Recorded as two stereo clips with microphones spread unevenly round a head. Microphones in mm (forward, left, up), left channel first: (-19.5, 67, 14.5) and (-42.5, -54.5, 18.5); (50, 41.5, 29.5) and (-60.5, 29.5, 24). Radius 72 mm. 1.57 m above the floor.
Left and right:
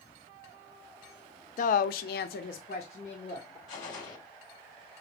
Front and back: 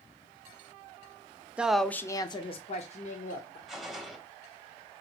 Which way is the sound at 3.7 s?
95° left.